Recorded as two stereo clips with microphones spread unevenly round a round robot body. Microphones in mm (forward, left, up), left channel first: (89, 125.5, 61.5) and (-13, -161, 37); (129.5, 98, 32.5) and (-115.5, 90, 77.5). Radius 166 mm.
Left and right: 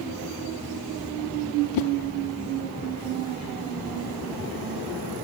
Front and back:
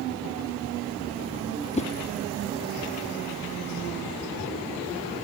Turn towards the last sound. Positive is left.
turn(degrees=65)